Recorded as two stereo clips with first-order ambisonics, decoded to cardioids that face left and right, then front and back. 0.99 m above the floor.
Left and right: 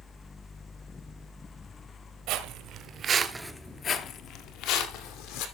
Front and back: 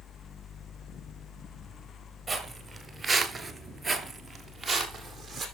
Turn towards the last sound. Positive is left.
turn(degrees=90)